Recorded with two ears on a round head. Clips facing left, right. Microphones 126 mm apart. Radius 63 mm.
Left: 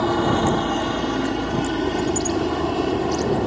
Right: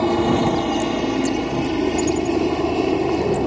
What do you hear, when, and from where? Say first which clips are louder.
0.0 s a helicopter: right 2 dB; 15° right (ahead or behind)